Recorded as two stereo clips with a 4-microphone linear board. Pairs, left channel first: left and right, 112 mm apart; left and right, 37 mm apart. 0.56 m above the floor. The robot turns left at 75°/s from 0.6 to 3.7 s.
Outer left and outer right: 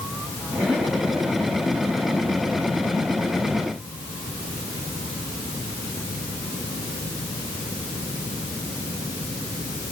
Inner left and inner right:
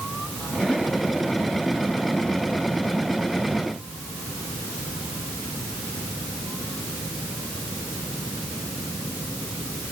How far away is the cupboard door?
I don't hear a cupboard door.